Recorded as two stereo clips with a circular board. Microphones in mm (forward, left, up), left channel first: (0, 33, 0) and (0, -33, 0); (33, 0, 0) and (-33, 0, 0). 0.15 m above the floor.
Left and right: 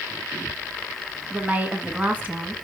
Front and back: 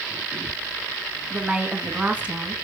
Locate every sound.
1.3 s a woman speaking: 130° right, 1.5 m